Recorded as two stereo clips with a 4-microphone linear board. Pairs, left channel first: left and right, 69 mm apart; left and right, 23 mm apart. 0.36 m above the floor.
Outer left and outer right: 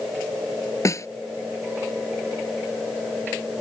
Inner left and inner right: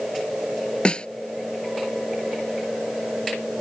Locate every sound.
0.8 s a snare drum: 45° left (ahead or behind)